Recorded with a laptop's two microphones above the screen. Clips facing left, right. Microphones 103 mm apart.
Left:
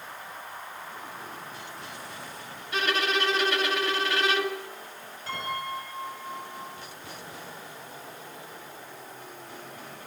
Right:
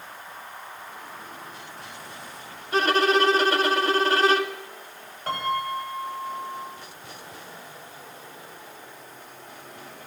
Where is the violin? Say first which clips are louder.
Right 7 dB; 35° right (ahead or behind), 2.0 m.